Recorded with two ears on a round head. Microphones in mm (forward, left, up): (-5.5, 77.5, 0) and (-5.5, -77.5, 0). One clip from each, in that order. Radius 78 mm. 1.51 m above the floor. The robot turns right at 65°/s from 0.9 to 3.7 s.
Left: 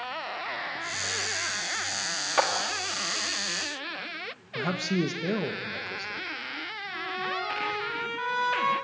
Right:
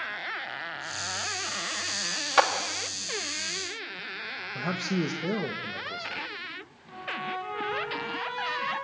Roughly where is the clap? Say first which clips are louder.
Right 3 dB; right.